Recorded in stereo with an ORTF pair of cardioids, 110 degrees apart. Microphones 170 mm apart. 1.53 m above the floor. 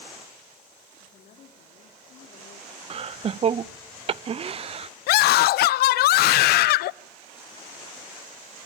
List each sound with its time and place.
1.0 s a woman speaking: 55° left, 3.5 m
2.9 s laughter: 35° right, 0.6 m
5.1 s a scream: 70° left, 0.6 m